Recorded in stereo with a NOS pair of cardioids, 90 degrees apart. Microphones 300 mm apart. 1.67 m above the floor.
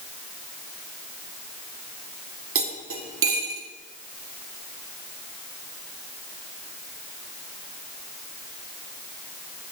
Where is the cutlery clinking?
45° right, 3 m.